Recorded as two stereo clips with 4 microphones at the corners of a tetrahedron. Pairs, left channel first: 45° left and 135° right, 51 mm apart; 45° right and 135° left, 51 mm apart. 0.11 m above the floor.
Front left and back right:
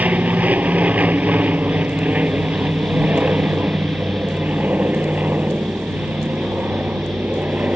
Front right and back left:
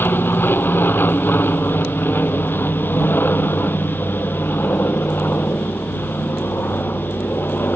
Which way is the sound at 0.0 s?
80° right.